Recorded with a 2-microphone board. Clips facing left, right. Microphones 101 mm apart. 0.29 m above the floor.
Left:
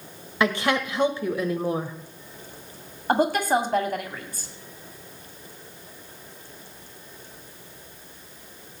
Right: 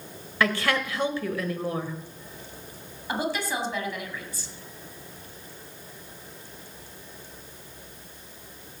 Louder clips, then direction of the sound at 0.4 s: Left 2 dB; 20° left (ahead or behind).